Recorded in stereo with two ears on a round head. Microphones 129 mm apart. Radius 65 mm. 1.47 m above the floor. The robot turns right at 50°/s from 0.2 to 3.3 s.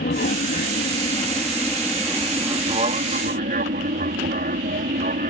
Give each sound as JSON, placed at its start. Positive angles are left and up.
{"t": 0.0, "sound": "an aircraft", "side_deg": 65}